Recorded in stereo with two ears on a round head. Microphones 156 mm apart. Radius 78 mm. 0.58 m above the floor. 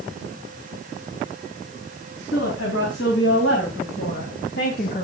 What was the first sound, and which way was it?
A woman speaking, 80° left.